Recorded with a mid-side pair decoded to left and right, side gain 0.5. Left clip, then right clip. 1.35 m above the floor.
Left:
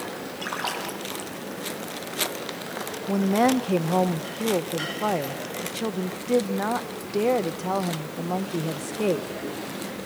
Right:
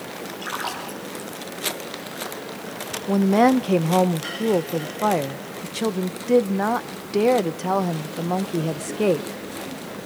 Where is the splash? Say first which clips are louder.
Even; 20° left, 4.5 m.